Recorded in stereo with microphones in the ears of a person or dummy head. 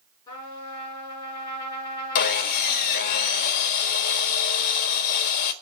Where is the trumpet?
25° left (ahead or behind), 7 m.